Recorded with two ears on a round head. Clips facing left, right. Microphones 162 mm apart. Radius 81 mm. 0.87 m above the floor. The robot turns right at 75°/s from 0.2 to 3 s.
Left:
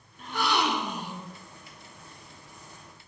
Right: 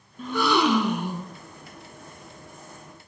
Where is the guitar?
I don't hear a guitar.